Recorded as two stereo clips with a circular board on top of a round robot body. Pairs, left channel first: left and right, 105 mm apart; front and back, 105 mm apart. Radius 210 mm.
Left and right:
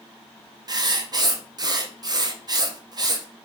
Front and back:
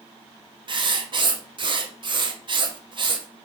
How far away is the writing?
About 0.6 m.